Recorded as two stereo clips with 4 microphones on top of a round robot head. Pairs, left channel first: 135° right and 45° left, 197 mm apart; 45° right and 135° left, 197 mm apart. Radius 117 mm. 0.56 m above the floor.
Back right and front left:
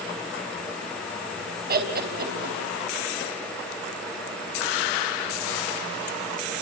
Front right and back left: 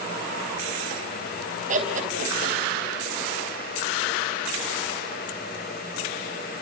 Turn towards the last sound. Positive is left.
turn(degrees=85)